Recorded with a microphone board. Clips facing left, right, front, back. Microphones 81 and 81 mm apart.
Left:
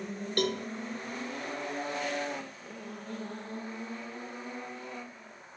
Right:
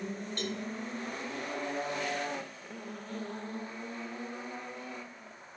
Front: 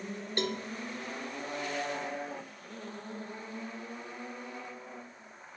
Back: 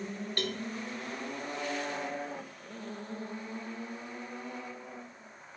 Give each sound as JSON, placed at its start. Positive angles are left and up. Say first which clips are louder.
{"t": 0.4, "sound": "a cowbell", "louder": "left 9 dB, front 3 dB", "azimuth_deg": 70, "distance_m": 0.6}